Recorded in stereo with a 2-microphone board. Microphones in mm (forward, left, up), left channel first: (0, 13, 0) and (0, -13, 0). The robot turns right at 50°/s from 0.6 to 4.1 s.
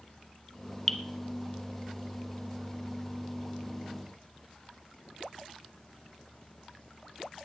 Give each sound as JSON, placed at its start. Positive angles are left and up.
{"t": 0.9, "sound": "dripping", "side_deg": 10, "distance_m": 1.4}